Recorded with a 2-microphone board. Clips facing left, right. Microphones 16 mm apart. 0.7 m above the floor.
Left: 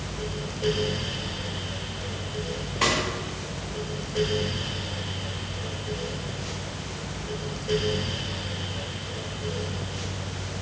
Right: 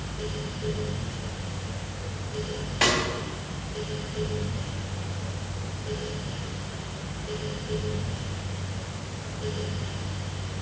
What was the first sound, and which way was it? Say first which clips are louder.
A snare drum: right 1 dB; 40° right (ahead or behind).